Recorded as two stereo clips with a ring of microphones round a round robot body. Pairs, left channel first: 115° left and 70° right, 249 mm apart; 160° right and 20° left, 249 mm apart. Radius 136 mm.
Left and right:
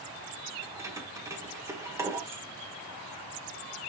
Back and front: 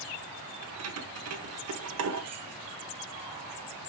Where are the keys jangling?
10° left, 1.6 m.